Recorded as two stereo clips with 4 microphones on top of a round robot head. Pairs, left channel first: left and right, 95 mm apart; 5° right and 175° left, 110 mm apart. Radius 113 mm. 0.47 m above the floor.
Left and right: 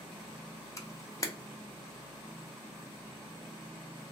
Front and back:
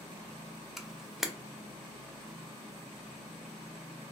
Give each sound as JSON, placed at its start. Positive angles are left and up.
{"t": 0.8, "sound": "a camera shutter", "azimuth_deg": 90, "distance_m": 0.7}